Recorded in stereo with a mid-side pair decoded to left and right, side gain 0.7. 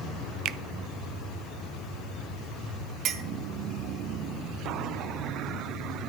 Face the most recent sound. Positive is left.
turn(degrees=-50)